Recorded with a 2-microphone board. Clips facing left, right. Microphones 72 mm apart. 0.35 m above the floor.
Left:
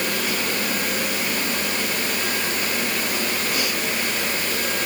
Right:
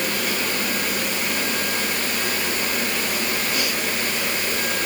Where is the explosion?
No explosion in this recording.